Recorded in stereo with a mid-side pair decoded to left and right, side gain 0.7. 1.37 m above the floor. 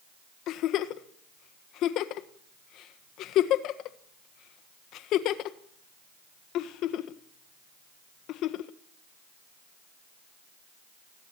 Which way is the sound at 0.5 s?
55° left.